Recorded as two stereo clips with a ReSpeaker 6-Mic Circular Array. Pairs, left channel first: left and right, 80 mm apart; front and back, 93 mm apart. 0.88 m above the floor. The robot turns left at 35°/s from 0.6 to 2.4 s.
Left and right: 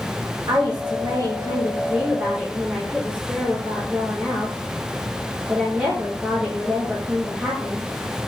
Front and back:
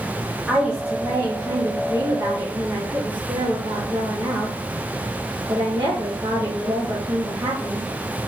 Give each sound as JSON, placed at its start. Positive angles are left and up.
{"t": 0.5, "sound": "a woman speaking", "azimuth_deg": -95, "distance_m": 1.5}